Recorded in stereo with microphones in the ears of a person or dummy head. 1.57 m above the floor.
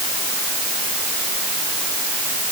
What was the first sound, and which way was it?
Only background noise.